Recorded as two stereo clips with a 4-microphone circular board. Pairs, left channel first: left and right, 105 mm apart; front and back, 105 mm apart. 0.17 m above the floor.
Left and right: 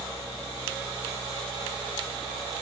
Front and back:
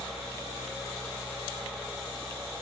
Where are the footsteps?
No footsteps in this recording.